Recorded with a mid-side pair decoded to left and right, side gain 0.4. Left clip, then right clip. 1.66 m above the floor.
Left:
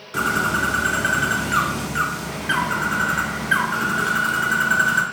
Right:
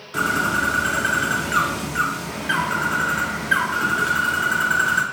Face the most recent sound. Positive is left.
turn(degrees=15)